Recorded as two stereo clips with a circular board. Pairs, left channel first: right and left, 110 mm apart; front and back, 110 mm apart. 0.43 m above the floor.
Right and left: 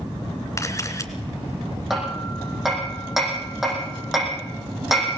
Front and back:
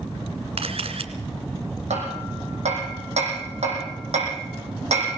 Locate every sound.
0.6 s a camera shutter: 150° right, 2 m
1.9 s hammering: 175° left, 8.5 m